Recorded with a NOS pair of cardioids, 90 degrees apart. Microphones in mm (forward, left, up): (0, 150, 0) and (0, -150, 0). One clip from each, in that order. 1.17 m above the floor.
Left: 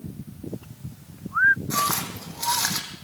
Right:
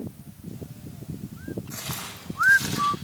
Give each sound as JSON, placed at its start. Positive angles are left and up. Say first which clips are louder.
{"t": 1.7, "sound": "footsteps", "louder": "left 11 dB", "azimuth_deg": 70, "distance_m": 4.0}